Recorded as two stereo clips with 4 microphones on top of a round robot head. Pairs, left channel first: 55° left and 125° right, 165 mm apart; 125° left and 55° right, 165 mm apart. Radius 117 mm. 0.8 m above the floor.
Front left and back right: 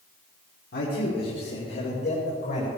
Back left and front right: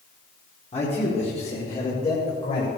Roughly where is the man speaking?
Left.